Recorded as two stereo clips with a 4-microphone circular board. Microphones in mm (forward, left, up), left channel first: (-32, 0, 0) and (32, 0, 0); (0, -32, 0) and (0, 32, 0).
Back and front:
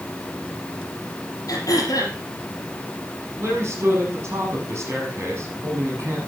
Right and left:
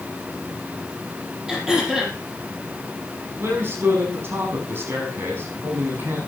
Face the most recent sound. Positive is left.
turn(degrees=40)